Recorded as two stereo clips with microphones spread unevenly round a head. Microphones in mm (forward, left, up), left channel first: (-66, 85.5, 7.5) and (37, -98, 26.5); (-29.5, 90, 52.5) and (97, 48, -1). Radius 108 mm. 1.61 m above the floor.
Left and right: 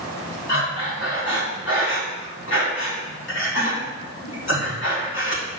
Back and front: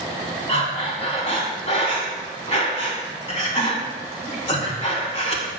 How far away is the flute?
I don't hear a flute.